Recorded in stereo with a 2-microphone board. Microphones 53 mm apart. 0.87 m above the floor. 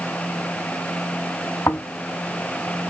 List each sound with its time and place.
1.7 s snoring: 70° left (ahead or behind), 1.9 m